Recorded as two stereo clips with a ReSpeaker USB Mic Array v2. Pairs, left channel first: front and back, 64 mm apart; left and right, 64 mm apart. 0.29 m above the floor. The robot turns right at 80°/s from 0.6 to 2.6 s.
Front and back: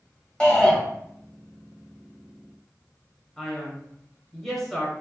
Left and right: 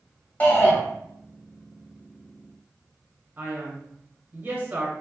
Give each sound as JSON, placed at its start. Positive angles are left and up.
{"t": 0.4, "sound": "a shout", "azimuth_deg": 60, "distance_m": 1.1}
{"t": 3.4, "sound": "a man speaking", "azimuth_deg": -90, "distance_m": 1.0}